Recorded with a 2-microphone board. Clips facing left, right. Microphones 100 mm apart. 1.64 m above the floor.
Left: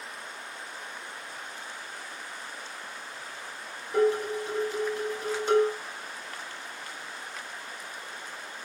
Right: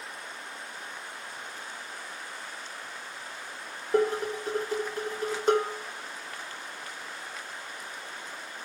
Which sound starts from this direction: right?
Dishes clattering, at 3.9 s.